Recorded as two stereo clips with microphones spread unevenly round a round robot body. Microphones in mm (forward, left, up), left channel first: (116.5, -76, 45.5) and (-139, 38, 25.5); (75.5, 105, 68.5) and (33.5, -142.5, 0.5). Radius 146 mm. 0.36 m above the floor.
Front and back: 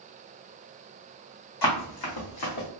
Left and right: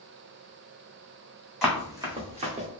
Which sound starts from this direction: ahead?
Running footsteps, at 1.6 s.